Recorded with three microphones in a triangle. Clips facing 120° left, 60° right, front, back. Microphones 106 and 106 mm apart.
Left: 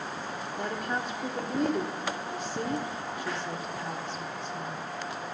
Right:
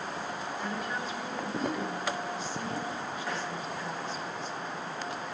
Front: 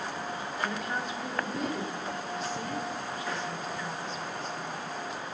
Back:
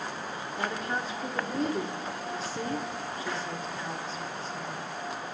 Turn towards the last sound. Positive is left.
turn(degrees=130)